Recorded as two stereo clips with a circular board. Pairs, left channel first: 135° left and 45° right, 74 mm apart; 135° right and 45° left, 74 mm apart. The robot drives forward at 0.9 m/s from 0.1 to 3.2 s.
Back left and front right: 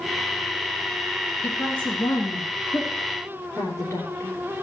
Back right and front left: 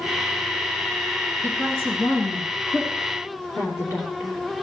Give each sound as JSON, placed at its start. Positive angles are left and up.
{"t": 1.4, "sound": "a woman speaking", "azimuth_deg": -170, "distance_m": 1.8}